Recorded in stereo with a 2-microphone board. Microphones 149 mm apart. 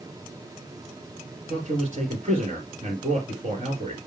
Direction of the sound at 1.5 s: 45° right (ahead or behind).